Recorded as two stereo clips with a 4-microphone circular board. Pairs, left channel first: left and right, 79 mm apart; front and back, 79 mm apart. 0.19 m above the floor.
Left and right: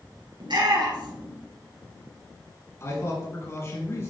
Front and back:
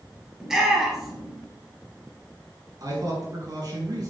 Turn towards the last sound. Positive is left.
turn(degrees=145)